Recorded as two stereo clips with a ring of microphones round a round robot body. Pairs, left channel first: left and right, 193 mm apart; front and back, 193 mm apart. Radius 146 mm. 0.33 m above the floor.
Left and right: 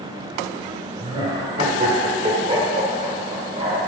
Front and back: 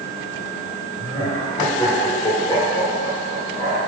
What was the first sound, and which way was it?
Laughter, 55° right.